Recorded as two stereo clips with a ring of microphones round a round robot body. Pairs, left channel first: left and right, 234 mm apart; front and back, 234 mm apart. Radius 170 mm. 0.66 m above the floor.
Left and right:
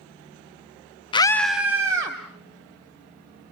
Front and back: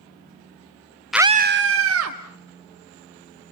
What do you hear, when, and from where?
1.1 s a scream: 90° left, 0.6 m; by 2.2 s 165° right, 1.7 m